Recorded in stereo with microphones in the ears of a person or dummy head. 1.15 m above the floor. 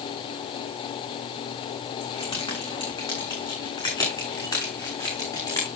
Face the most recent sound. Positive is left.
turn(degrees=15)  # may be behind; listen again after turning